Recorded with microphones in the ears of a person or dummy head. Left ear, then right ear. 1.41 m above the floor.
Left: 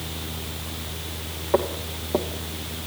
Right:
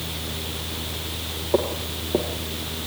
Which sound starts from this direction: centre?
Footsteps, at 1.5 s.